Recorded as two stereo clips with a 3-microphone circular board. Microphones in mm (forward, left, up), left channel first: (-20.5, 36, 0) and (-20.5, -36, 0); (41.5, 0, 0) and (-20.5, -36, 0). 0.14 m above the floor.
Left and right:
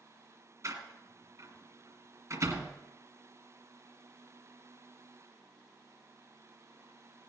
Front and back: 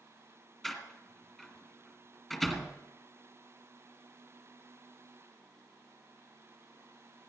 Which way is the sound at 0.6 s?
60° right.